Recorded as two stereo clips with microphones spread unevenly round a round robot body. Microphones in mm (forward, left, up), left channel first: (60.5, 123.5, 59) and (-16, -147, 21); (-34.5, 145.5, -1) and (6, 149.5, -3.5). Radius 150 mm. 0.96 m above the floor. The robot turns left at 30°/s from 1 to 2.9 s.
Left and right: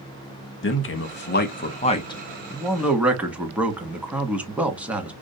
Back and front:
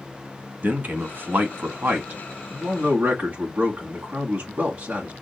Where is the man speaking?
30° left, 1.2 m; by 5.1 s 25° right, 1.2 m.